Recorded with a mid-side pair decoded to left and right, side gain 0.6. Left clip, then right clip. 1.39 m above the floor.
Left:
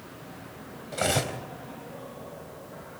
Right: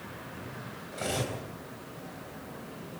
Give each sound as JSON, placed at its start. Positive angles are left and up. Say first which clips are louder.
{"t": 0.9, "sound": "cutlery clinking", "louder": "left 6 dB", "azimuth_deg": 45, "distance_m": 4.0}